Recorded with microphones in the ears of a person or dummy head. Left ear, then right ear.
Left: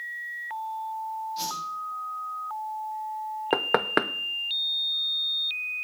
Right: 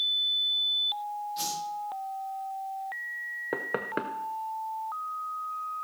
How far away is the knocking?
About 0.6 m.